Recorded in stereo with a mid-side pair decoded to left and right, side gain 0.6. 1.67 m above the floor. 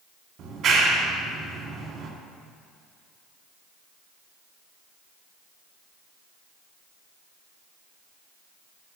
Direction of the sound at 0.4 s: 50° right.